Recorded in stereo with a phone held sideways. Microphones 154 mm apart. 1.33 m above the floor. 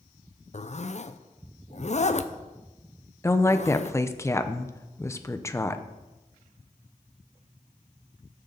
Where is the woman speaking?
20° left (ahead or behind), 0.8 m.